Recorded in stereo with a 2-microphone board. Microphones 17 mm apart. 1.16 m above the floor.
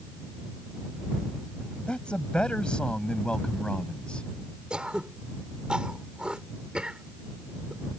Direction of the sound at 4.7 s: 65° right (ahead or behind).